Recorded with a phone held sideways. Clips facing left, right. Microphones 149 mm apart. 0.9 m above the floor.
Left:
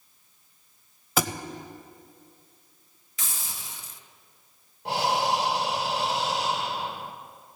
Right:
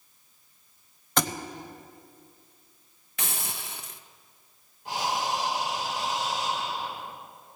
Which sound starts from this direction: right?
A hiss, at 3.2 s.